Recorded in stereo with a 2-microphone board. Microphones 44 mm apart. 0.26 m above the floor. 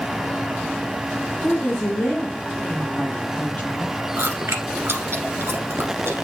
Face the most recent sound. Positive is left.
turn(degrees=-75)  # may be behind; listen again after turning